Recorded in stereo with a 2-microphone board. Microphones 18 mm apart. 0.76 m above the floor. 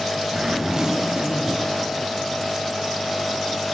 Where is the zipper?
35° right (ahead or behind), 1.6 m.